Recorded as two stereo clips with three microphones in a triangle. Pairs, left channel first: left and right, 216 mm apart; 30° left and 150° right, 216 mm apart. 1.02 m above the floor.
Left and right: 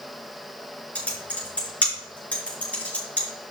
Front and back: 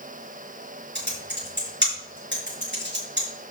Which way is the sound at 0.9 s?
175° left.